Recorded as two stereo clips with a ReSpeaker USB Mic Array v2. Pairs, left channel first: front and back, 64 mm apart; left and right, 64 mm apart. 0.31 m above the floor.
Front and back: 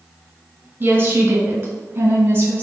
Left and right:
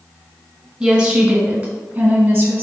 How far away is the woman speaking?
About 1.1 m.